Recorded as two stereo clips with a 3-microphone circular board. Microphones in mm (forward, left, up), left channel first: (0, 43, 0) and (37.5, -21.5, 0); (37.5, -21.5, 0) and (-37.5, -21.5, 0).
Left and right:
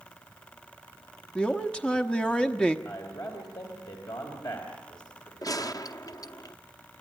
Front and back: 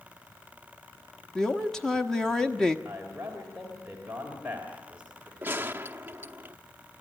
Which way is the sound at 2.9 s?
105° left.